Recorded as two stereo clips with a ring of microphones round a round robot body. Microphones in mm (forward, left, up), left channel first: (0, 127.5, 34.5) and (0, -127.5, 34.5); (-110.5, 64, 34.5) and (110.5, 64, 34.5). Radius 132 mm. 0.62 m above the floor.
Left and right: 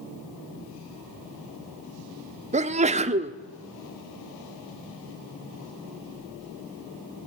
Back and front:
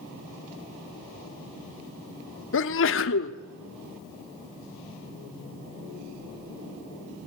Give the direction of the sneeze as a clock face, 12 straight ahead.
5 o'clock.